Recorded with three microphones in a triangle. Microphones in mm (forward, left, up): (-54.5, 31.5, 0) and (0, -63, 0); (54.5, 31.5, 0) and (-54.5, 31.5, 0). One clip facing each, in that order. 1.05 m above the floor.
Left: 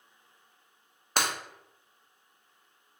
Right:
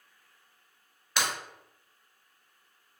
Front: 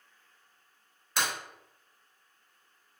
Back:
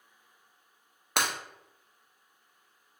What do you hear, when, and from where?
1.2 s breaking glass: 160° left, 0.7 m